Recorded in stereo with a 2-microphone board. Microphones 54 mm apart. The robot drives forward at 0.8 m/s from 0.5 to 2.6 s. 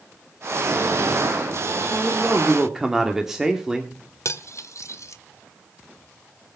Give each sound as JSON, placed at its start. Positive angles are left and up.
{"t": 1.9, "sound": "a man speaking", "side_deg": -5, "distance_m": 2.0}
{"t": 4.2, "sound": "cutlery clinking", "side_deg": 70, "distance_m": 1.1}